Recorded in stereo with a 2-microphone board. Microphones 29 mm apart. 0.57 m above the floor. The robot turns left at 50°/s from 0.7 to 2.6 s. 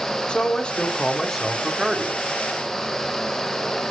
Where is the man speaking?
40° left, 1.2 m; by 2.3 s 40° right, 1.2 m.